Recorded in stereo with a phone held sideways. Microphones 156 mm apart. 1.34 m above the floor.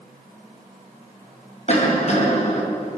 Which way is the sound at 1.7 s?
50° left (ahead or behind).